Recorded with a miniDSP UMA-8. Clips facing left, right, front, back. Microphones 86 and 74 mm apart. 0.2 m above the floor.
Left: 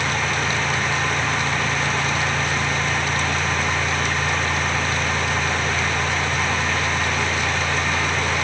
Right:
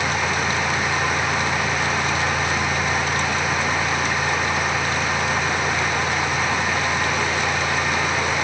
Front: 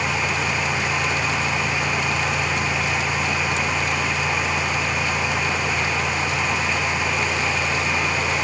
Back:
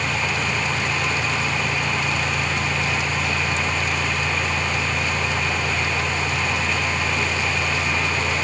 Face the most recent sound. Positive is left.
No sound to turn to.